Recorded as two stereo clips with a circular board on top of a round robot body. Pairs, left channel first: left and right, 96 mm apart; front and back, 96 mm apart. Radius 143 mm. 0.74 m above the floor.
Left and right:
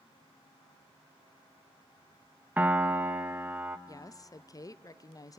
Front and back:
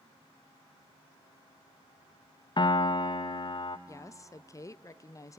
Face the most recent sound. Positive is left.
turn(degrees=50)